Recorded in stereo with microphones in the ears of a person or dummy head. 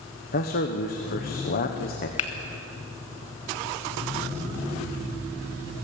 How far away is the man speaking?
About 1.1 m.